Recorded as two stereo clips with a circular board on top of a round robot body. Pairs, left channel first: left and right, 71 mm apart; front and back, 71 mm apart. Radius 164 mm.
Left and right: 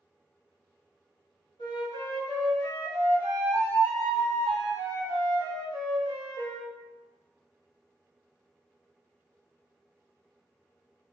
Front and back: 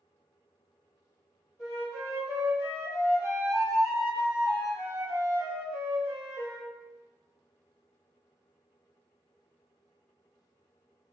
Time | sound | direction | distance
1.6 | a flute | 110° left | 1.3 m